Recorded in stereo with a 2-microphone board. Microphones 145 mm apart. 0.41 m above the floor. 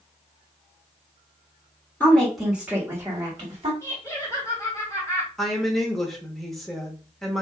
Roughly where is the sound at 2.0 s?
Centre.